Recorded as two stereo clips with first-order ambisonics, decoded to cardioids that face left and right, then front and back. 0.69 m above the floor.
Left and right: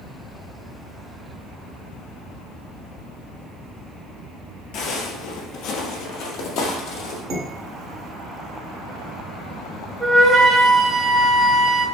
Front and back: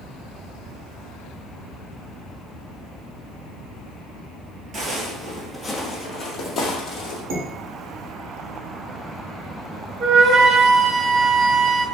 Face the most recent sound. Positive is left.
turn(degrees=180)